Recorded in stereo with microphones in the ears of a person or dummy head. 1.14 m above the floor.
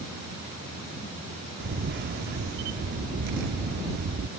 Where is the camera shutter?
50° right (ahead or behind).